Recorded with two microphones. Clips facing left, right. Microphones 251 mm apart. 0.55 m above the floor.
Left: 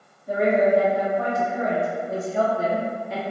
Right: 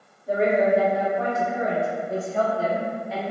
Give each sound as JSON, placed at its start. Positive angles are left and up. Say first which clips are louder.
{"t": 0.3, "sound": "a woman speaking", "louder": "left 1 dB", "side_deg": -30, "distance_m": 1.6}